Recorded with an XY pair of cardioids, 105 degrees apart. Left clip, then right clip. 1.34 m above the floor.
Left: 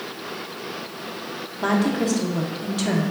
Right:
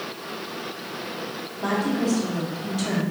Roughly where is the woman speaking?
Ahead left.